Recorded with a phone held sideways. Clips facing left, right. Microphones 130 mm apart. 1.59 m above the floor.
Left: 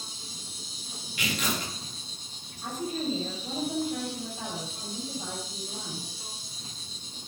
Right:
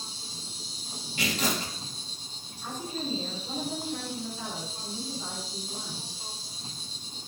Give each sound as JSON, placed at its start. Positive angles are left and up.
{"t": 0.0, "sound": "an insect", "side_deg": -25, "distance_m": 2.0}
{"t": 1.2, "sound": "tearing paper", "side_deg": -35, "distance_m": 3.0}
{"t": 2.6, "sound": "a woman speaking", "side_deg": 40, "distance_m": 7.5}